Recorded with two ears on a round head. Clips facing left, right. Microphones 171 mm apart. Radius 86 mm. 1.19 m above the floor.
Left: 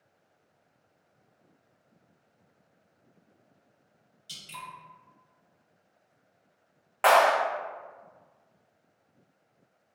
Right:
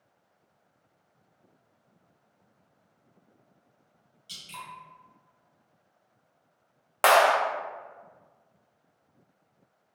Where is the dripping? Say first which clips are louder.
Even; 15° left (ahead or behind), 1.6 m.